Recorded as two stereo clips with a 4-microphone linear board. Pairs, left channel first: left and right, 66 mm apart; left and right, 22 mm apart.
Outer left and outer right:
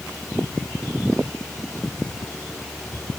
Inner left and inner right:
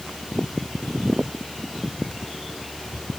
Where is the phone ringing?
I don't hear a phone ringing.